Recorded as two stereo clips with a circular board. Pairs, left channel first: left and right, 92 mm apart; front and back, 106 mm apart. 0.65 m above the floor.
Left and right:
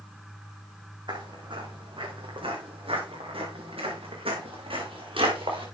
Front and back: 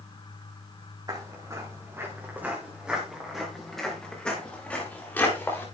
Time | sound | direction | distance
1.1 | footsteps | 125° right | 4 m